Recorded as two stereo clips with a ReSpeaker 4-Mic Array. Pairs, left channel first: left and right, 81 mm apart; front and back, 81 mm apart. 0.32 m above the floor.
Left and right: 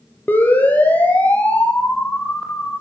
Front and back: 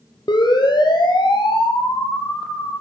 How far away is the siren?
About 7.5 m.